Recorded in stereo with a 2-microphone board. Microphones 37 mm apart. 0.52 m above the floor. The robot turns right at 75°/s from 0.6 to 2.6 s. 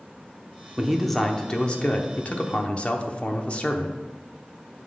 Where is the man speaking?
20° right, 0.9 m; by 4.0 s 115° left, 0.9 m.